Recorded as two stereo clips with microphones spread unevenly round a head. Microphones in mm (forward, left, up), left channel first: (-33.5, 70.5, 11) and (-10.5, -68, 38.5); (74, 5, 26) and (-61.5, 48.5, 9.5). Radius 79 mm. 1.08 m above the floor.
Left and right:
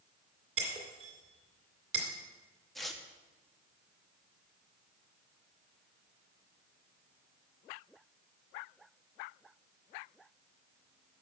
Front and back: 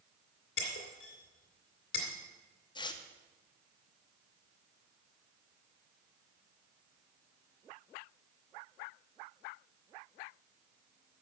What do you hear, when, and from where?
0.6 s breaking glass: 35° right, 2 m
2.8 s tearing paper: 25° left, 0.8 m